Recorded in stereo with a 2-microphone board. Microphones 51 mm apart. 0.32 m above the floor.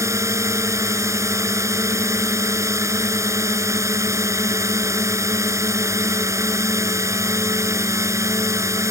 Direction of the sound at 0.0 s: 75° right (ahead or behind).